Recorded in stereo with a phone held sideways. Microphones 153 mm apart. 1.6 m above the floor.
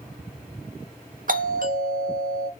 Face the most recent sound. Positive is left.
turn(degrees=-60)  # may be behind; listen again after turning